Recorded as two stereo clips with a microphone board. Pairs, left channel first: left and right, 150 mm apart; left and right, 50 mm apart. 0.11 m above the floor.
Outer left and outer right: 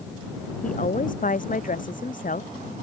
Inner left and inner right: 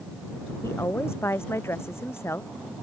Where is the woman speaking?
70° left (ahead or behind).